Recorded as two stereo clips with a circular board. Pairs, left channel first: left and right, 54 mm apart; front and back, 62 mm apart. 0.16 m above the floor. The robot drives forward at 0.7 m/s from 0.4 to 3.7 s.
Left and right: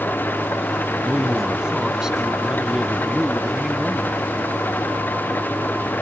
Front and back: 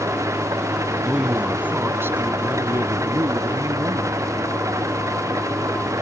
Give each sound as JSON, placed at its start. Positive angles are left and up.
{"t": 0.0, "sound": "an engine running", "azimuth_deg": 140}
{"t": 1.0, "sound": "a man speaking", "azimuth_deg": -120}